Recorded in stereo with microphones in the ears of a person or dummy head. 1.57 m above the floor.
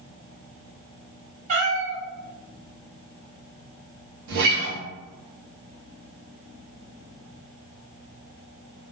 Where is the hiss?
No hiss in this recording.